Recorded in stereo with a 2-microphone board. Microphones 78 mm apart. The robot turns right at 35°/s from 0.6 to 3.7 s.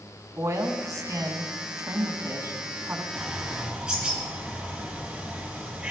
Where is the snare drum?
I don't hear a snare drum.